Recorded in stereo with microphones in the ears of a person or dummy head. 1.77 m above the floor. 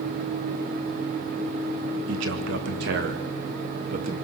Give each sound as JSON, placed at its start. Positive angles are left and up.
{"t": 2.1, "sound": "a man speaking", "side_deg": -75, "distance_m": 2.5}